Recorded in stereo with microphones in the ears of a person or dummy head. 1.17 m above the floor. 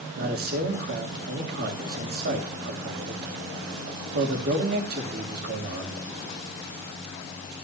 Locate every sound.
0.2 s a man speaking: 50° right (ahead or behind), 2.5 m